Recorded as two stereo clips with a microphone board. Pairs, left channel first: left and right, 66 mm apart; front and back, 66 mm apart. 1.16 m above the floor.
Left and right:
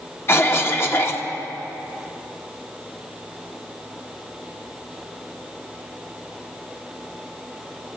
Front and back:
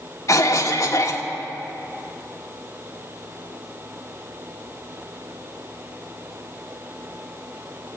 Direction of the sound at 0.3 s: 35° left.